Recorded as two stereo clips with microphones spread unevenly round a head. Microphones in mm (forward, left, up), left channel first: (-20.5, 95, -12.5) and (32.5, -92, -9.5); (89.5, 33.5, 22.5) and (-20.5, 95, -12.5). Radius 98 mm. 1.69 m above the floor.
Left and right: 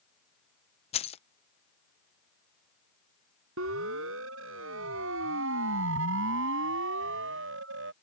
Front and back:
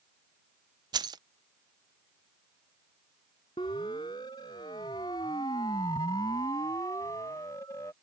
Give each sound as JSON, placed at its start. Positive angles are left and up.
{"t": 0.9, "sound": "keys jangling", "azimuth_deg": 95}
{"t": 3.6, "sound": "a siren", "azimuth_deg": -95}